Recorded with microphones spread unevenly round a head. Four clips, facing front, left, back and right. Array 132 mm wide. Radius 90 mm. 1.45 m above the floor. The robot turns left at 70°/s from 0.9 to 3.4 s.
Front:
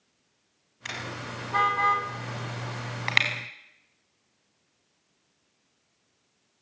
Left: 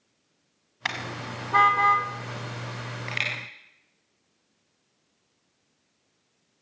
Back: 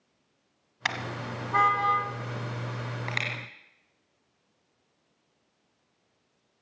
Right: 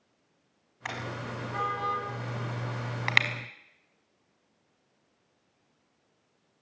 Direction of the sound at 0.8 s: 125° left.